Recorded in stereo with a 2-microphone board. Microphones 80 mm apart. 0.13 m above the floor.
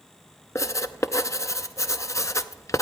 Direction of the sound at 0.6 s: 40° left (ahead or behind).